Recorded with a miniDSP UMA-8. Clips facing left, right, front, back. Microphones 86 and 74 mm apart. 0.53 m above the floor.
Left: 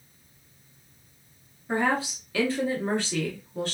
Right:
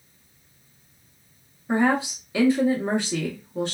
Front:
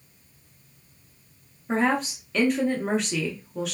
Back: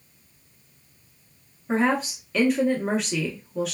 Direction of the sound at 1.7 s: 90° right.